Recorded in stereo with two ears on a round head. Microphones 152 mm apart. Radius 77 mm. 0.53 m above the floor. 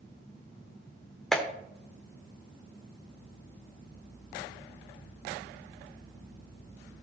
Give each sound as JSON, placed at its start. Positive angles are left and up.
{"t": 1.3, "sound": "a clap", "side_deg": 0, "distance_m": 1.3}